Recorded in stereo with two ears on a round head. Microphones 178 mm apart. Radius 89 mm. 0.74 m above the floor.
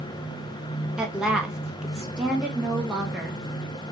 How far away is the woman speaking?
About 0.9 m.